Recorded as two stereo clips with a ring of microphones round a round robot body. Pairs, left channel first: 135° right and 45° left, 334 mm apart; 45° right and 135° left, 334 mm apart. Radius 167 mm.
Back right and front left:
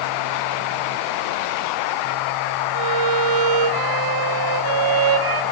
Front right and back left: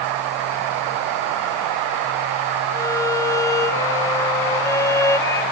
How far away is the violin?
About 1.2 m.